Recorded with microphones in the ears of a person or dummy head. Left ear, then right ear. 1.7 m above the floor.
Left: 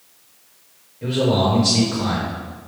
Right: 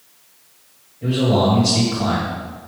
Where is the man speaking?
50° left (ahead or behind), 1.9 m.